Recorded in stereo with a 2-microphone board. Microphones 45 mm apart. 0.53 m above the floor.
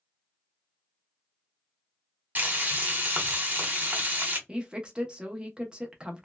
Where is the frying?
40° right (ahead or behind), 1.0 m.